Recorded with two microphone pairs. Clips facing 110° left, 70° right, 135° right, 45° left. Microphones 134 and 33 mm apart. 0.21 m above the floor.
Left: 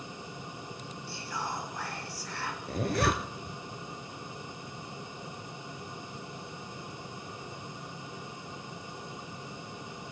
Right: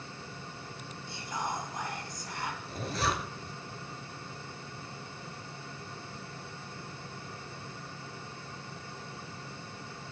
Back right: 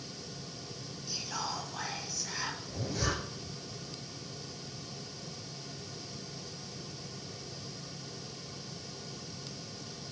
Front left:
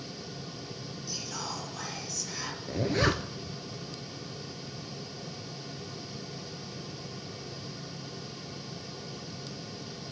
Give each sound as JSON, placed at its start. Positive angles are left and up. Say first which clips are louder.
{"t": 1.1, "sound": "whispering", "louder": "right 1 dB, back right 1 dB", "azimuth_deg": -105, "distance_m": 1.6}
{"t": 2.7, "sound": "a zipper", "louder": "left 5 dB, front left 10 dB", "azimuth_deg": 85, "distance_m": 0.9}